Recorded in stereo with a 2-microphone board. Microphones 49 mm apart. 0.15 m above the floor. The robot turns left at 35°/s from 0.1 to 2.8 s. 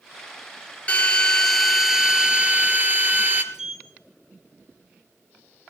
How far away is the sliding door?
About 1.9 m.